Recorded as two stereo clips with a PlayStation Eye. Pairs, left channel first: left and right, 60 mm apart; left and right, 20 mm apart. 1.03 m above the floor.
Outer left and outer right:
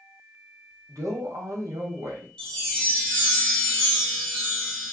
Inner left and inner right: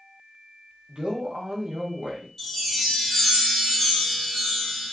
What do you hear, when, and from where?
0.9 s a man speaking: 65° right (ahead or behind), 1.2 m
2.4 s a chime: 10° left (ahead or behind), 1.1 m